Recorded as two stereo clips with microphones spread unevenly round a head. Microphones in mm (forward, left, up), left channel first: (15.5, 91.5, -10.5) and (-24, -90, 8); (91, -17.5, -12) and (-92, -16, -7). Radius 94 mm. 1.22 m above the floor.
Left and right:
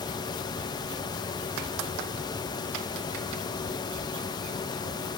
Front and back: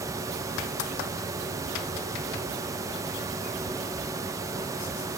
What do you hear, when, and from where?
Only background noise.